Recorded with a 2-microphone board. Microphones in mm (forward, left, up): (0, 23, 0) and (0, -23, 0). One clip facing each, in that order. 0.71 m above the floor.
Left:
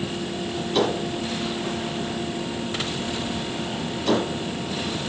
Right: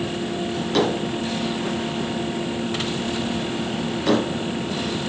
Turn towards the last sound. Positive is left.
turn(degrees=-85)